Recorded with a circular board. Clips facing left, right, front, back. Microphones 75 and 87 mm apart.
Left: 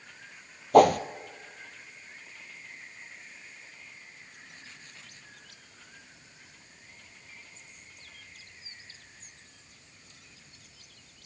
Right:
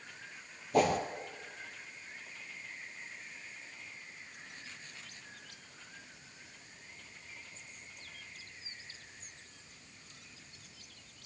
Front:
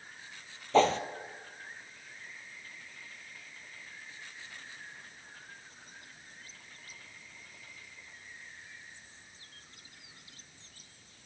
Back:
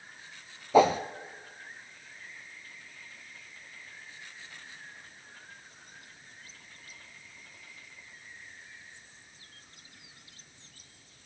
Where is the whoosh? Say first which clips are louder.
Left 10 dB, back 3 dB; 100° left, 1.2 m.